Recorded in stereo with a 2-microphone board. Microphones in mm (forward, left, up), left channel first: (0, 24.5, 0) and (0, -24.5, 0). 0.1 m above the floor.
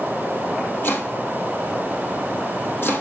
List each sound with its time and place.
0.8 s chopping: 45° left (ahead or behind), 3 m